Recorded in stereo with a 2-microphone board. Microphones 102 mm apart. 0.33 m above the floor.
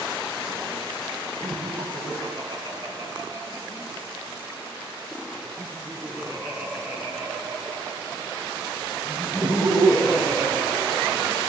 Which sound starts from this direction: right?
Laughter, at 1.4 s.